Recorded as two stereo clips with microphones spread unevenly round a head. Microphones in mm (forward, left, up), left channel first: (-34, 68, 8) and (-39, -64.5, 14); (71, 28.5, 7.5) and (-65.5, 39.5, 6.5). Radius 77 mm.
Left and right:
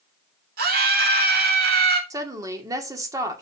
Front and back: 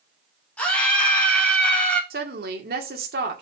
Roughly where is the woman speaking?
Behind right.